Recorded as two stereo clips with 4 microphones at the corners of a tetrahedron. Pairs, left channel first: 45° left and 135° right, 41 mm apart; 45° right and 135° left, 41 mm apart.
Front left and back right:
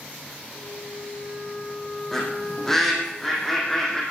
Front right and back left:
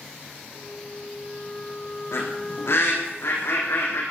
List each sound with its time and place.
0.5 s a flute: 30° left, 5 m
2.1 s a bird: 35° right, 5 m